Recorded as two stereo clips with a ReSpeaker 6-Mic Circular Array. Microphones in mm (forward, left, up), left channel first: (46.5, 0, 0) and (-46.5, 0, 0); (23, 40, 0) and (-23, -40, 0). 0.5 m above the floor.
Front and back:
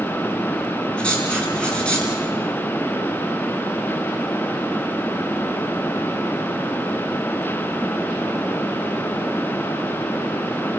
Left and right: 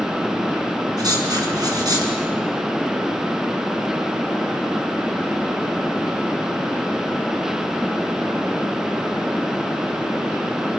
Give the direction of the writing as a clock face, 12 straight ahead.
3 o'clock.